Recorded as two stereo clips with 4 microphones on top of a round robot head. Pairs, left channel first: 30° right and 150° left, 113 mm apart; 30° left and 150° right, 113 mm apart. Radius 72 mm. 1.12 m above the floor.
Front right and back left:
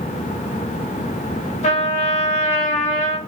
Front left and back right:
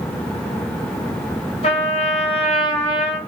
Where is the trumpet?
5° right, 3 m.